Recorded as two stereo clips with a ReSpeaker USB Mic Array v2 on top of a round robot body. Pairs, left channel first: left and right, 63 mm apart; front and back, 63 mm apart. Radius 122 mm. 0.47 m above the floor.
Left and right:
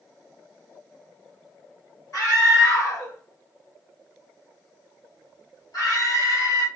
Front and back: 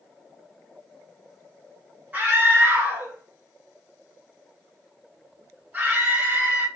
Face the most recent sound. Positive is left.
turn(degrees=120)